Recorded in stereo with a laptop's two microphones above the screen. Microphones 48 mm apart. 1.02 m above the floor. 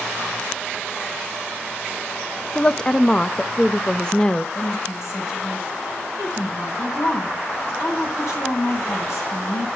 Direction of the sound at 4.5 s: 65° left (ahead or behind).